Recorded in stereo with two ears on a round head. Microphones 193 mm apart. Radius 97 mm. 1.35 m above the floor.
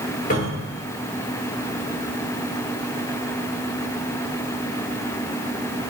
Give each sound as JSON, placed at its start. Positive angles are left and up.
{"t": 0.3, "sound": "a cupboard door", "side_deg": 40, "distance_m": 2.0}